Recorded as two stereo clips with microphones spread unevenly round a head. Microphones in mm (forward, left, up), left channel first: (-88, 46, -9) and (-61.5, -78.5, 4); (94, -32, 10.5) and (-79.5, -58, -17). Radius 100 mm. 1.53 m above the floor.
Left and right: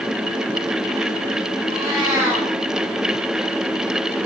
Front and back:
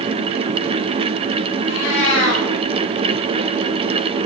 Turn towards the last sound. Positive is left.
turn(degrees=15)